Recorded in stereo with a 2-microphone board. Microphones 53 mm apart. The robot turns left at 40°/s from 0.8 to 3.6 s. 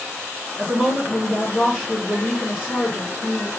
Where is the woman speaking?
165° right, 1.7 m; by 3.5 s 90° left, 1.7 m.